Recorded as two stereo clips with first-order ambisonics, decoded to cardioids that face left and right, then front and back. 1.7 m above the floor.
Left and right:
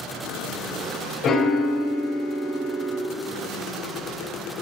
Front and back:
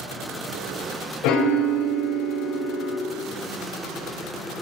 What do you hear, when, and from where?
1.2 s a piano: 30° left, 0.5 m